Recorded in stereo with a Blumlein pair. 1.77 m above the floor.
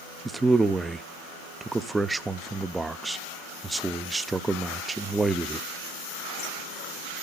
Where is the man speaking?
10° right, 0.6 m.